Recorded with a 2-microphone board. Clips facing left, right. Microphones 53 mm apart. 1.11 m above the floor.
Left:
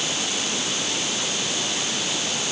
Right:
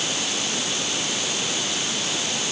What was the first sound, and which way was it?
Only background noise.